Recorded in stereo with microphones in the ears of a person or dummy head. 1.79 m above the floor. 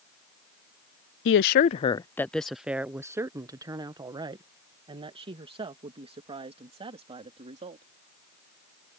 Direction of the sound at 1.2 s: 60° left (ahead or behind).